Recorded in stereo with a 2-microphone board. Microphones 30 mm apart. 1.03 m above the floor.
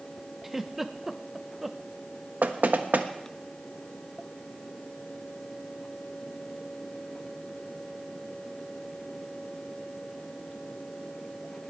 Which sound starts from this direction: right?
Knocking, at 2.4 s.